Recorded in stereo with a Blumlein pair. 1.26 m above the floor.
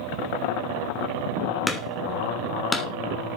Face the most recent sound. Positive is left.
turn(degrees=5)